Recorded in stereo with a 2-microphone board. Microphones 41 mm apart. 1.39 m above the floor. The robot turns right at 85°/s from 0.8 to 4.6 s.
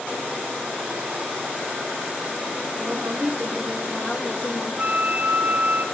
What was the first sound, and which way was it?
A woman speaking, 80° right.